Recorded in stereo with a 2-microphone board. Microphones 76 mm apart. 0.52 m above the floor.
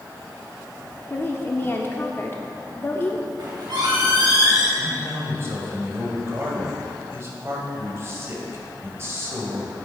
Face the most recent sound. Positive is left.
turn(degrees=-35)  # may be behind; listen again after turning